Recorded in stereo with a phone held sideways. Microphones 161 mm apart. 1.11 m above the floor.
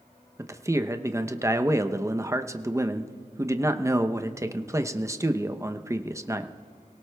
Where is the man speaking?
20° right (ahead or behind), 0.7 m.